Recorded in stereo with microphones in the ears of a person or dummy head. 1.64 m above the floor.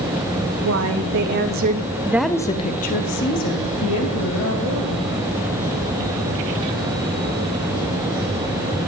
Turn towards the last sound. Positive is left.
turn(degrees=75)  # may be behind; listen again after turning